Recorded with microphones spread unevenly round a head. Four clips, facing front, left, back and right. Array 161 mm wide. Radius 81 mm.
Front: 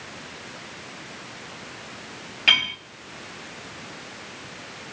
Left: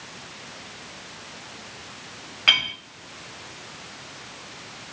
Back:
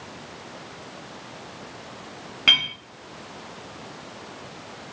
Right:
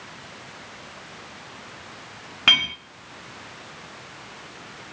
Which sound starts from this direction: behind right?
A clink, at 2.5 s.